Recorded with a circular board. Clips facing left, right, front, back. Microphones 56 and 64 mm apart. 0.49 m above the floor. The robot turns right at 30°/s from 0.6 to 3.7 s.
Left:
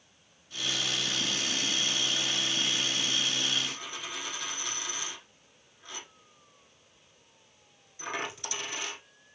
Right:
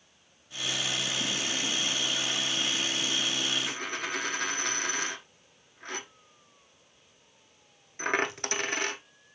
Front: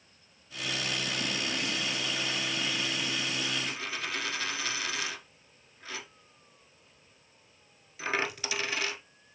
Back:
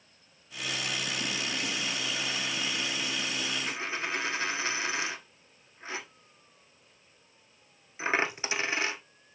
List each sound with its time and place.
3.7 s a dropped coin: 120° right, 0.9 m